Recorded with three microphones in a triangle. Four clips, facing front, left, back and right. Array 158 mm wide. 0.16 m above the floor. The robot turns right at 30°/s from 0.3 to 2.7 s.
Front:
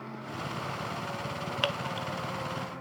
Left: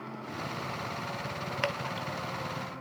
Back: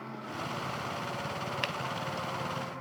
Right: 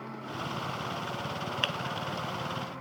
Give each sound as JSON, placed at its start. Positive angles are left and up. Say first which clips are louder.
{"t": 1.6, "sound": "dripping", "louder": "left 1 dB, front 2 dB", "azimuth_deg": 40, "distance_m": 1.0}